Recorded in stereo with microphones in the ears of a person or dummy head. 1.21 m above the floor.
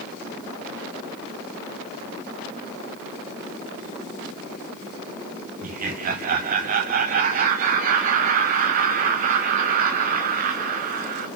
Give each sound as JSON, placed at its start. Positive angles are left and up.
{"t": 5.6, "sound": "laughter", "side_deg": -45, "distance_m": 0.7}